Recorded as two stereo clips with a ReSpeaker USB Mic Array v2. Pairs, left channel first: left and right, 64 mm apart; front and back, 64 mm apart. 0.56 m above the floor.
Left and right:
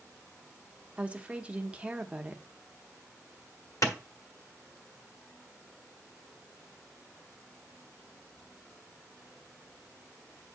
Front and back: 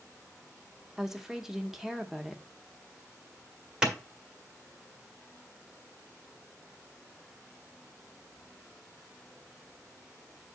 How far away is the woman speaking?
About 0.8 m.